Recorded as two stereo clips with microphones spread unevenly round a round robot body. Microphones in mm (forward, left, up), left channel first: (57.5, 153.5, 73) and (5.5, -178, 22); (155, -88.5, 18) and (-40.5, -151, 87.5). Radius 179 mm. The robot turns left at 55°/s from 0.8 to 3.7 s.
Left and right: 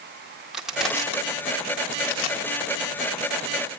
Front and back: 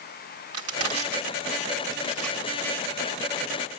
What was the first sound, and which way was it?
Crushing, 175° left.